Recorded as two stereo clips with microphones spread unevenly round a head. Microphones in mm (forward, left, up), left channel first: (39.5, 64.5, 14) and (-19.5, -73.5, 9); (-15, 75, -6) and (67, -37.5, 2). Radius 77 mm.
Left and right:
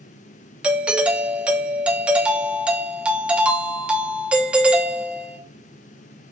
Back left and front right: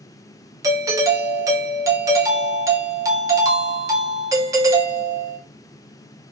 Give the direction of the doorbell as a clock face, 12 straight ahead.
2 o'clock.